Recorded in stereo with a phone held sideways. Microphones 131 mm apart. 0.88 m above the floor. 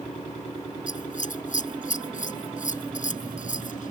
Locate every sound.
0.9 s scissors: 65° left (ahead or behind)